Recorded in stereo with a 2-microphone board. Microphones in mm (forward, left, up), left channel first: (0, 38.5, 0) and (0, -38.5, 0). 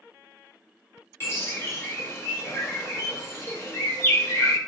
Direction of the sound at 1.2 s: 30° left (ahead or behind).